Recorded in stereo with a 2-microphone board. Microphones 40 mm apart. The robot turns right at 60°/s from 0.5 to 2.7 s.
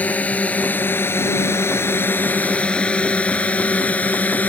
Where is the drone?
40° left (ahead or behind).